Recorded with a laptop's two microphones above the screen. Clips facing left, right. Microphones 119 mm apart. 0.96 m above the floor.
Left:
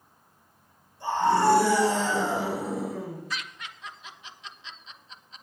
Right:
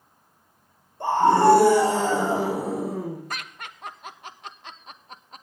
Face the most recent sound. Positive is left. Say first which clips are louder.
# right 1 dB
turn(degrees=-50)  # may be behind; listen again after turning